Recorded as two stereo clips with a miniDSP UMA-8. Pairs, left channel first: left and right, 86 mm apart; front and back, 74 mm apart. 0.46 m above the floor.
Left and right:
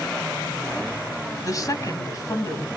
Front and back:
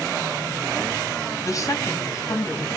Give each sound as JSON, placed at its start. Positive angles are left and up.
{"t": 1.4, "sound": "a woman speaking", "azimuth_deg": 45, "distance_m": 3.0}